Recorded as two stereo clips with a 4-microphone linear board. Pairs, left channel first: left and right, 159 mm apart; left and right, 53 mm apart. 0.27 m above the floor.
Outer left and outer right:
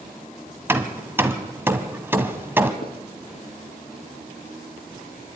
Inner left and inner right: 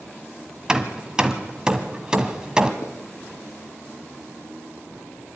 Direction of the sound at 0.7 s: 15° right (ahead or behind).